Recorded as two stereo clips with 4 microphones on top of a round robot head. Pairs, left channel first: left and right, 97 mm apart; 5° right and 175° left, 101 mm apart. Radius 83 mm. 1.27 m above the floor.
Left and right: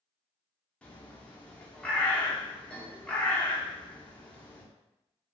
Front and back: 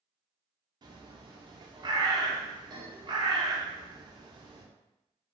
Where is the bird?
165° left, 0.7 m.